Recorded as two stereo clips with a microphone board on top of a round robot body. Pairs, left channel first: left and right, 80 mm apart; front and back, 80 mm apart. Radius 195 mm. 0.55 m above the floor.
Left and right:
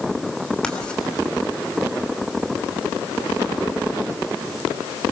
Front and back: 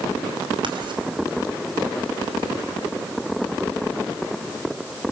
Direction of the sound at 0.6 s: 170° left.